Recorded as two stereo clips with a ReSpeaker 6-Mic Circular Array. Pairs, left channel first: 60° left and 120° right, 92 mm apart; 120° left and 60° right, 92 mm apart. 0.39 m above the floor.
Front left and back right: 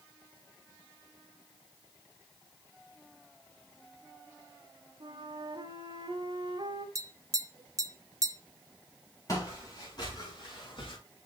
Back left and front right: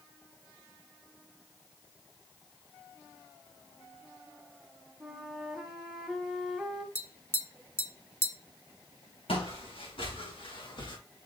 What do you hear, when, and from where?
5.0 s a flute: 150° right, 1.3 m
7.0 s tapping: 175° right, 0.8 m
9.3 s footsteps: 110° left, 4 m; by 11.0 s 85° left, 2.5 m